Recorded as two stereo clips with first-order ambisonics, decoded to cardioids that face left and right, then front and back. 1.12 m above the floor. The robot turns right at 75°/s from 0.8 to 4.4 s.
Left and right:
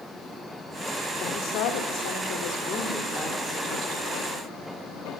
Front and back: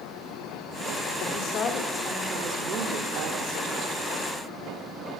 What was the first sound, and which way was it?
A woman speaking, 30° left.